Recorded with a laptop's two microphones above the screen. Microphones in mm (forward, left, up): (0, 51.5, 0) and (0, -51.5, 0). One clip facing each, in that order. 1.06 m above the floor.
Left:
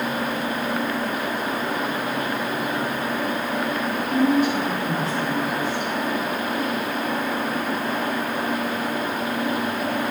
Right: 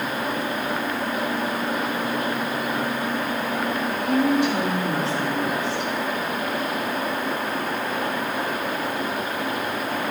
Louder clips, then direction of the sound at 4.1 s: Left 1 dB; 75° right (ahead or behind).